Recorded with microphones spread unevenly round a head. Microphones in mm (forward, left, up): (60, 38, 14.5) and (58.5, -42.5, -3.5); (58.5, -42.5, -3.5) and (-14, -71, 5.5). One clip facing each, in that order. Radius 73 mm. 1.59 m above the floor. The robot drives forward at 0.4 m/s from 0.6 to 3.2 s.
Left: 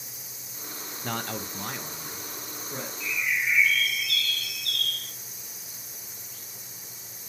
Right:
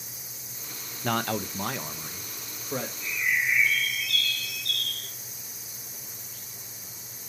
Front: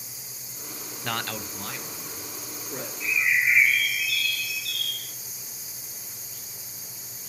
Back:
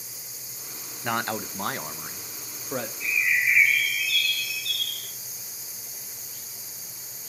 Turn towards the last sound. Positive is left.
turn(degrees=95)